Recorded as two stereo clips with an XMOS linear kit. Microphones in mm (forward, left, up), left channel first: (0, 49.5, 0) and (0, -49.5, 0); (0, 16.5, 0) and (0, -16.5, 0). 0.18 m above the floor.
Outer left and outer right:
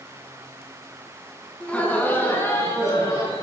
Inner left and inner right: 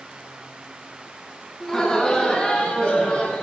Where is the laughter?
10° left (ahead or behind), 1.8 m; by 3.4 s 35° left (ahead or behind), 3 m.